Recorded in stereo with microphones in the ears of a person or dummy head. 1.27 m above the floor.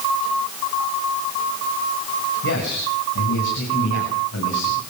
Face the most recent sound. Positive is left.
turn(degrees=75)  # may be behind; listen again after turning